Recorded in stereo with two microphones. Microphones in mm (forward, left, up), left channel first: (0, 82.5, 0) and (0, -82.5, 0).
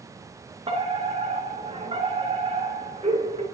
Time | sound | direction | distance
0.7 | a fire alarm | 35° right (ahead or behind) | 2.5 m